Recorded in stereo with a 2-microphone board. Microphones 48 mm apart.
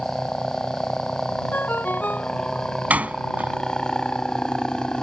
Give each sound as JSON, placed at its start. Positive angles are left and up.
{"t": 0.0, "sound": "a helicopter", "side_deg": 15}
{"t": 1.5, "sound": "a ringtone", "side_deg": 40}
{"t": 2.9, "sound": "a door slam", "side_deg": -30}